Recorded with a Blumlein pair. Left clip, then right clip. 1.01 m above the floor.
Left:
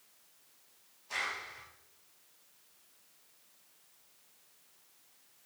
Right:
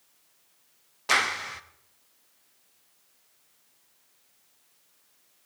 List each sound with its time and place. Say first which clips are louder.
1.1 s a clap: right 12 dB; 45° right, 0.8 m